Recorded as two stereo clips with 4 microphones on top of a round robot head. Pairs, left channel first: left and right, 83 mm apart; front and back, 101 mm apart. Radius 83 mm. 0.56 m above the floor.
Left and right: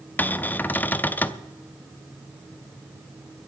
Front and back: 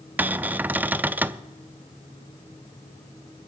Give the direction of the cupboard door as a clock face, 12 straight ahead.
8 o'clock.